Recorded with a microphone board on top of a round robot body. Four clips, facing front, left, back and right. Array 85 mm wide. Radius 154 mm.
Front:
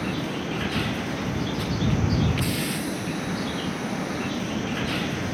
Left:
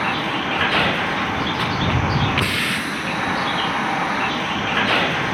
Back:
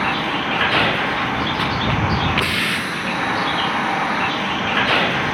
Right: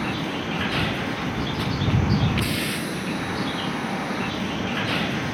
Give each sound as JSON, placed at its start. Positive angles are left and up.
{"t": 0.0, "sound": "a vehicle", "azimuth_deg": 145}